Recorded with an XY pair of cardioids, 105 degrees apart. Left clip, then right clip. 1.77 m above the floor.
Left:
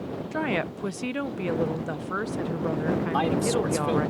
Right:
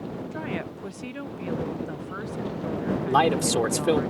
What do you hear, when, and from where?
0.3 s a woman speaking: 40° left
3.1 s a man speaking: 50° right